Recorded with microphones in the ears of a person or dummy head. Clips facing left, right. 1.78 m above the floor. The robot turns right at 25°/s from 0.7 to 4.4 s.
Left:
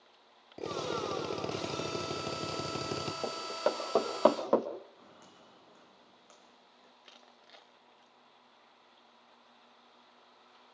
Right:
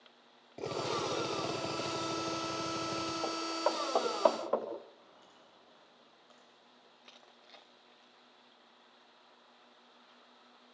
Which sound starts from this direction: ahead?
A drill, at 0.6 s.